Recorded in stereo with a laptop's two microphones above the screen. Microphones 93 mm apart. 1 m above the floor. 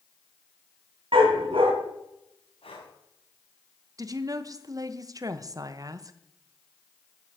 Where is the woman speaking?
40° right (ahead or behind), 0.9 m.